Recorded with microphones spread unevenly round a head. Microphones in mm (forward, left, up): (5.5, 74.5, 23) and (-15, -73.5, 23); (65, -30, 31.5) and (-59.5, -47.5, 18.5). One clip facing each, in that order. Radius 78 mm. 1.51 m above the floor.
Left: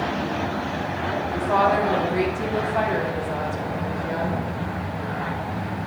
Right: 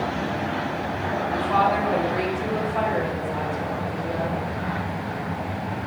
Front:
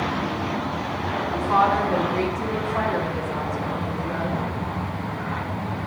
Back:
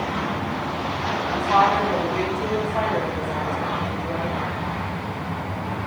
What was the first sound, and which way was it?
A woman speaking, 120° left.